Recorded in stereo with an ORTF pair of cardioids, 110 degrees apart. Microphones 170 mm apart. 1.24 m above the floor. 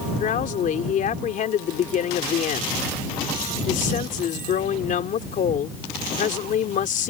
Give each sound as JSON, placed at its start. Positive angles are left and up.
{"t": 0.2, "sound": "a woman speaking", "azimuth_deg": 50}